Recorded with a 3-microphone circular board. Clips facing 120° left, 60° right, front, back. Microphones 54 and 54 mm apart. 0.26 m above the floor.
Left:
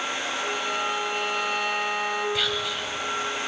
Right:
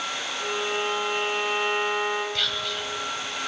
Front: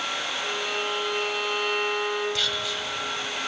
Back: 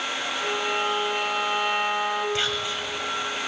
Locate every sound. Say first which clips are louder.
0.4 s a violin: right 2 dB, back 6 dB; 105° right, 2.5 m
2.4 s whispering: left 2 dB, back 2 dB; 165° right, 1.7 m